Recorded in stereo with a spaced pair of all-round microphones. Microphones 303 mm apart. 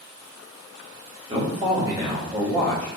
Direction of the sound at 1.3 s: 15° right (ahead or behind).